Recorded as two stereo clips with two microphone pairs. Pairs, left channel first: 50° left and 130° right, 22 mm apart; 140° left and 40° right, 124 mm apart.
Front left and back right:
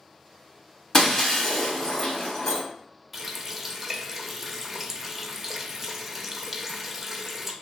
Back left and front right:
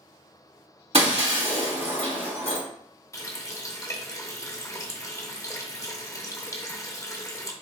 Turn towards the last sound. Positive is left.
turn(degrees=165)